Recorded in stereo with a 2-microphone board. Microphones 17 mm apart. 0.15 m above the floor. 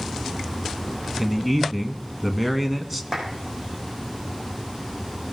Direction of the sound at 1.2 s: 15° right (ahead or behind).